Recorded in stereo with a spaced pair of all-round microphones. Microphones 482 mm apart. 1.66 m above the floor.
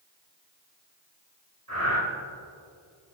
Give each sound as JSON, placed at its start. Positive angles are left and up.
{"t": 1.7, "sound": "breathing", "side_deg": -45, "distance_m": 3.0}